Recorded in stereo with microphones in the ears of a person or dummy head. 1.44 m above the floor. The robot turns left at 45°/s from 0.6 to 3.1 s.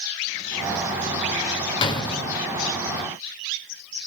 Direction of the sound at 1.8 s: 25° left (ahead or behind).